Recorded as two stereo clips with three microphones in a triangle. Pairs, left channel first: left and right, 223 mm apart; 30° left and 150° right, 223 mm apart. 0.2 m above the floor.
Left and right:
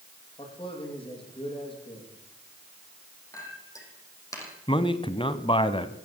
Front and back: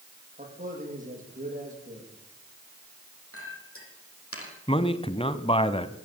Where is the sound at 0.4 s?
155° left, 9 m.